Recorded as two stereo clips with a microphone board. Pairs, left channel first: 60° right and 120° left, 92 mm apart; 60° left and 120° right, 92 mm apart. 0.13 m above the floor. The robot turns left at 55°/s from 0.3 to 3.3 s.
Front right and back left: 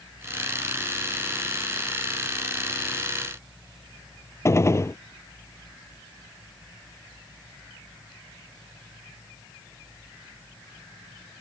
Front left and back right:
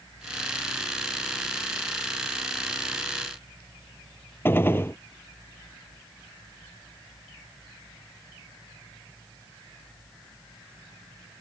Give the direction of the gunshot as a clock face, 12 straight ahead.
12 o'clock.